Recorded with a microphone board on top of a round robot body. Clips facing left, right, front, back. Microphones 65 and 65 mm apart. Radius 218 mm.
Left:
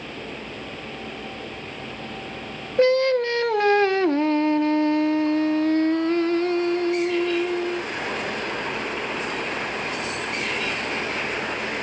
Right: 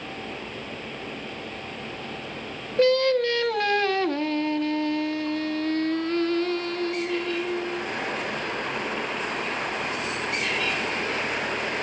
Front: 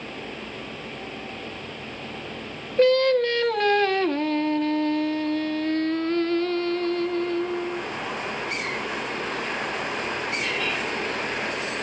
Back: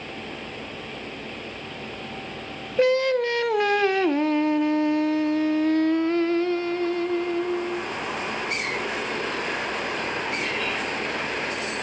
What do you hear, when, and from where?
2.8 s singing: 120° left, 1.3 m